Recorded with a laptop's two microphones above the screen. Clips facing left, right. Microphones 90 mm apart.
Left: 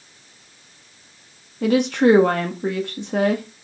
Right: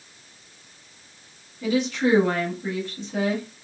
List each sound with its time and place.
1.6 s a woman speaking: 60° left (ahead or behind), 1.4 m